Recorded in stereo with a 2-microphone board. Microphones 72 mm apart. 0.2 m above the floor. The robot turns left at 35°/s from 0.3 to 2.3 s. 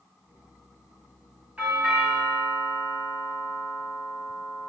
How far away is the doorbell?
About 1.5 m.